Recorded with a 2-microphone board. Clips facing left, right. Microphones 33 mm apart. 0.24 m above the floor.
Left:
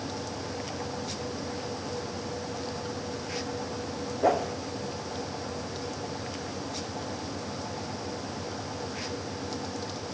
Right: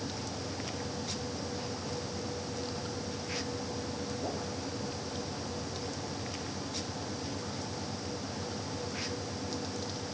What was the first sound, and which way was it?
A whoosh, 80° left.